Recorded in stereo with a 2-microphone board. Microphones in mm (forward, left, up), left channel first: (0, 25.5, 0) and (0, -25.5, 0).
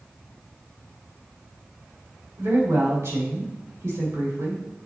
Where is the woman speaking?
70° right (ahead or behind), 3 m.